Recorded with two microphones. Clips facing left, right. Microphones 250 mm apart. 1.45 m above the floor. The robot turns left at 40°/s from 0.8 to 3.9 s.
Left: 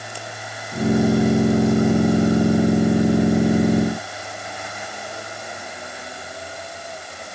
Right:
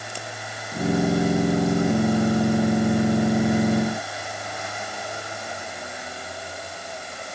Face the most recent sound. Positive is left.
No sound to turn to.